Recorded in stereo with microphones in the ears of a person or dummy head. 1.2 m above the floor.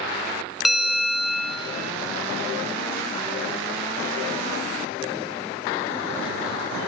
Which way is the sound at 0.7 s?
Centre (ahead or behind).